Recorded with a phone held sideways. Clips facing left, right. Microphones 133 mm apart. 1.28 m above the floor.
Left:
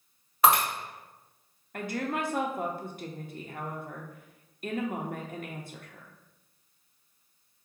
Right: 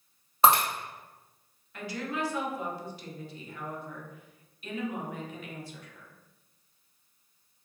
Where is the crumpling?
No crumpling in this recording.